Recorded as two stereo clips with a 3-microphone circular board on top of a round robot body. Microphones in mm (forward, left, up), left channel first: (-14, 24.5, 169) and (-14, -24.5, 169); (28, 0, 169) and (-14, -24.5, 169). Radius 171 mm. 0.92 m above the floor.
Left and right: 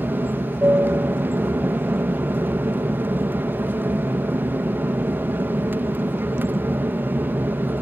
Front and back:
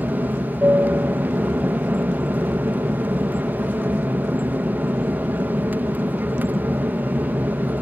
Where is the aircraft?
115° right.